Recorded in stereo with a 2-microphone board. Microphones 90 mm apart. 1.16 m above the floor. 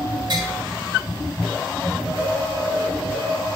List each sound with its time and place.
0.3 s tapping: 55° right (ahead or behind), 4.5 m